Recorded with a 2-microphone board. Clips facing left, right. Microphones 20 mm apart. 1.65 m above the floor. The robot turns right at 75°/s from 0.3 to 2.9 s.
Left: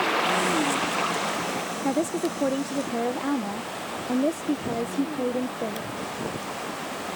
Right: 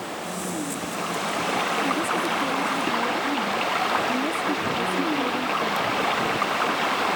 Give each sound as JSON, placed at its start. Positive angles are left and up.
{"t": 0.0, "sound": "running water", "azimuth_deg": 110}
{"t": 1.8, "sound": "a woman speaking", "azimuth_deg": 45}